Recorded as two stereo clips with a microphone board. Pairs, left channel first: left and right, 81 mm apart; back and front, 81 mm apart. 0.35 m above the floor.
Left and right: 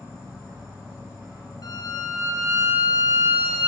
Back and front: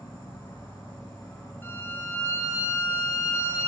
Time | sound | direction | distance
0.0 | an insect | 150° right | 1.3 m
1.6 | a violin | 120° left | 1.3 m